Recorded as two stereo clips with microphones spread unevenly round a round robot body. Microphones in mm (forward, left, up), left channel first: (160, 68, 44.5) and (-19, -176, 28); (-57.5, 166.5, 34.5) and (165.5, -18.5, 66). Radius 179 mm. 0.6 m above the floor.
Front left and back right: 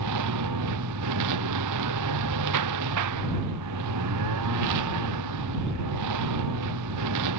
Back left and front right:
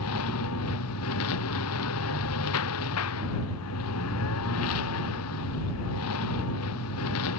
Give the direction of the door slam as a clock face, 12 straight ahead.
I don't hear a door slam.